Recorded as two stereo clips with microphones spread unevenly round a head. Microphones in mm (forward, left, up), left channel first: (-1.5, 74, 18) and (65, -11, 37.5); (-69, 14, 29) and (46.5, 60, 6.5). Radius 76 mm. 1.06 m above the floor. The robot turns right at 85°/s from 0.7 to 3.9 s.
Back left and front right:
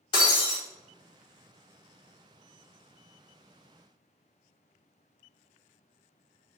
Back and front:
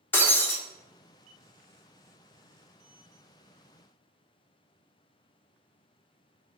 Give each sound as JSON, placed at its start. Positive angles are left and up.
{"t": 0.1, "sound": "breaking glass", "azimuth_deg": 170, "distance_m": 0.7}